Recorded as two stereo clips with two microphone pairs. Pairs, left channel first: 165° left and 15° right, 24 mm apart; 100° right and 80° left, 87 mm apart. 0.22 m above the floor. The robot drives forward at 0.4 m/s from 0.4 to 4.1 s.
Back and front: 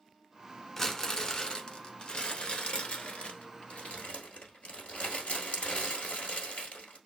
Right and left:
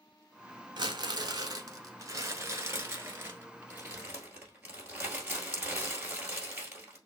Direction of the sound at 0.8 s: 95° left.